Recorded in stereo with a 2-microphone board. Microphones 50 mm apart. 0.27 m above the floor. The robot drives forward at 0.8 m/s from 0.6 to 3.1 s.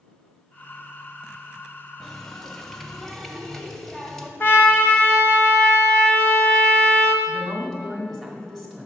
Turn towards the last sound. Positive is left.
turn(degrees=5)  # may be behind; listen again after turning